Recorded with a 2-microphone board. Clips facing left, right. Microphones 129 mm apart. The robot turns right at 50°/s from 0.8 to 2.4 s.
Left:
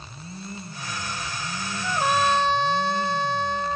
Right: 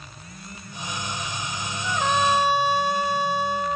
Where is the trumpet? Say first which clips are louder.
Even; 20° left (ahead or behind); by 3.8 s 10° right (ahead or behind).